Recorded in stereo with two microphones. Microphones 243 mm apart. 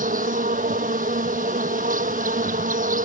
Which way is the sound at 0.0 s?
35° right (ahead or behind).